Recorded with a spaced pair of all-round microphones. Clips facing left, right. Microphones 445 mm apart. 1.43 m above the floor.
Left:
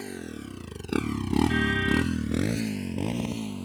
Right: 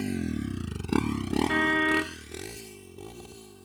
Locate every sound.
0.0 s a motorcycle: 45° right (ahead or behind); by 3.6 s 85° left
1.5 s a car horn: 75° right (ahead or behind)